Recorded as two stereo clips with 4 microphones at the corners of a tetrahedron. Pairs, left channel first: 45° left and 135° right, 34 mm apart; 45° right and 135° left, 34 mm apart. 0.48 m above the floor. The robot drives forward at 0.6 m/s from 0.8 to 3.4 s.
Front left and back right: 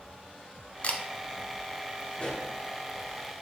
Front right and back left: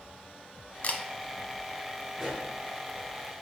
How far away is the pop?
About 1.3 m.